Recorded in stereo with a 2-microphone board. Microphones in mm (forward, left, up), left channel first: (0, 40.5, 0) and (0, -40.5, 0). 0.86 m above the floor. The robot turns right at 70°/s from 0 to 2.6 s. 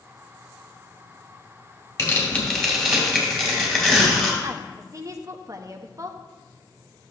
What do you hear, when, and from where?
2.0 s tearing paper: 130° left, 2.5 m; by 4.3 s 175° left, 2.5 m
4.4 s a woman speaking: 40° right (ahead or behind), 0.7 m